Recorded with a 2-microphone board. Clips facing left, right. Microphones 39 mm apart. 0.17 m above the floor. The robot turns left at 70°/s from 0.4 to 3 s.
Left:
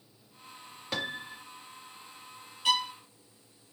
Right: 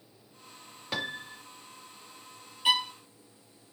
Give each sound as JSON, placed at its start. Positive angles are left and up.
{"t": 0.9, "sound": "a piano", "azimuth_deg": -170, "distance_m": 0.5}
{"t": 2.6, "sound": "a violin", "side_deg": -20, "distance_m": 0.5}